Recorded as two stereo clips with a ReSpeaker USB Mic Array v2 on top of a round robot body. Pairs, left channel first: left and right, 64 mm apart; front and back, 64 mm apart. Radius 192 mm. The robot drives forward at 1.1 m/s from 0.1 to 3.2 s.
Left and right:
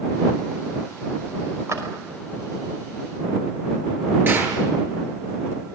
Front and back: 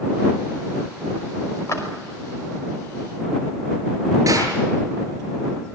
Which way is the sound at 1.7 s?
45° right.